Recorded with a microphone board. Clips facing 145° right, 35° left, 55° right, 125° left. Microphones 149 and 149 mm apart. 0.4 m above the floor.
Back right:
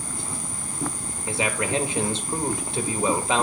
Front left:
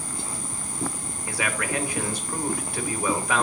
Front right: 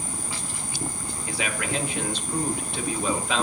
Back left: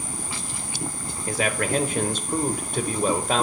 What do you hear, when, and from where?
1.3 s a man speaking: 155° left, 1.2 m